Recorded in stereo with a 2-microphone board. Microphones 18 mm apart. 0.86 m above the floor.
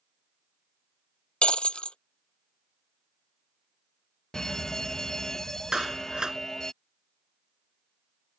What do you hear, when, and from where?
1.4 s breaking glass: 70° left (ahead or behind)
4.3 s a fire alarm: 30° left (ahead or behind)
5.7 s a clap: 45° right (ahead or behind)